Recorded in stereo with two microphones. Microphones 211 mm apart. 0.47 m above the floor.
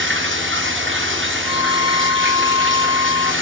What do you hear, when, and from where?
0.0 s running water: 65° right (ahead or behind), 5.5 m
1.4 s a violin: 20° right (ahead or behind), 1.7 m